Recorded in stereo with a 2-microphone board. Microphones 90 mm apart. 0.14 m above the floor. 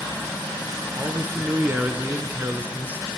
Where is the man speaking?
20° right (ahead or behind), 1.4 m.